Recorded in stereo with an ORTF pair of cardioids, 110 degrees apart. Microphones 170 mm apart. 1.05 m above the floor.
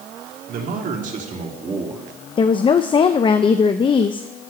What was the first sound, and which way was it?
A man speaking, 65° right.